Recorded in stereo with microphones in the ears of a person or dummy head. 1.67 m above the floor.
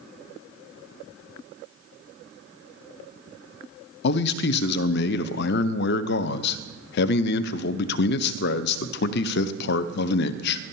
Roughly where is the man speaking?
Left.